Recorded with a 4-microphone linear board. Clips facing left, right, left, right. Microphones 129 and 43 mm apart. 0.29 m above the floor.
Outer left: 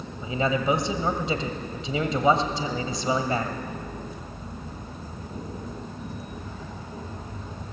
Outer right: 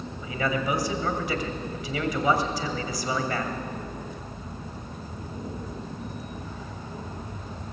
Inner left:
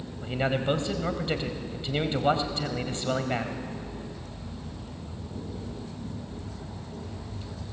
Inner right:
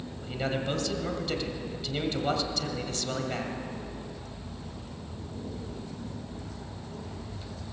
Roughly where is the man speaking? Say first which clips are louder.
Outer left 3 dB, inner left 4 dB; left.